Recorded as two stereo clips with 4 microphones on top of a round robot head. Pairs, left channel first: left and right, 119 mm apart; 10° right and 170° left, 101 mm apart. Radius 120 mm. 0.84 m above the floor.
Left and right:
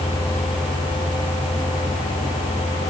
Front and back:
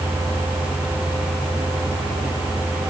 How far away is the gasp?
No gasp in this recording.